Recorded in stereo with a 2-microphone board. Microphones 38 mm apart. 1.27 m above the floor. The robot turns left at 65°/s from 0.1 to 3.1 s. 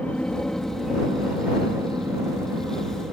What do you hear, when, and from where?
0.0 s an aircraft: 40° left; by 3.1 s 155° right